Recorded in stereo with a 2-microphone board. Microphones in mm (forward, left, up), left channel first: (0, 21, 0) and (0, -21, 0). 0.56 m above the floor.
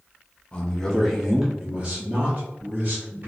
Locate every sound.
0.5 s a man speaking: 20° left (ahead or behind), 1.0 m; by 3.3 s 45° right (ahead or behind), 1.8 m